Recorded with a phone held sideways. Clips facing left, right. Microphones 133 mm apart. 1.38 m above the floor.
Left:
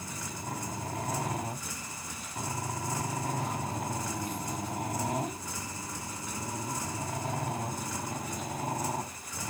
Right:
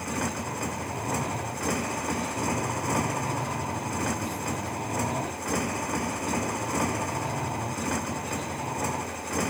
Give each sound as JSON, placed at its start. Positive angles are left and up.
{"t": 0.0, "sound": "a motorcycle", "side_deg": -75}